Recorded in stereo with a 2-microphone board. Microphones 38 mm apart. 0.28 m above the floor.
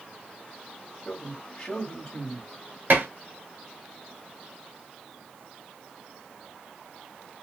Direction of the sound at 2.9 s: 60° right (ahead or behind).